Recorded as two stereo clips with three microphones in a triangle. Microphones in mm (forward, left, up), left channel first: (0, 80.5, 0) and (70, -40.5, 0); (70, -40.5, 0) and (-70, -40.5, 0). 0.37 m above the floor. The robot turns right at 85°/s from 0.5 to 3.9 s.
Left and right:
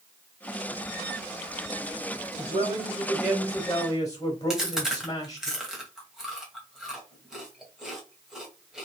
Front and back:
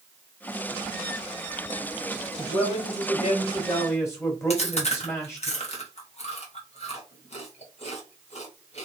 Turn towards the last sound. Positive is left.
turn(degrees=25)